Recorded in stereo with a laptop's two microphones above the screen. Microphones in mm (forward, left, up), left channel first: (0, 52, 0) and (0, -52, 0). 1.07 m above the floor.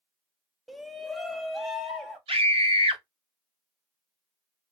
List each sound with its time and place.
0.7 s a shout: centre (ahead or behind), 0.5 m
2.3 s a scream: 65° right (ahead or behind), 1.2 m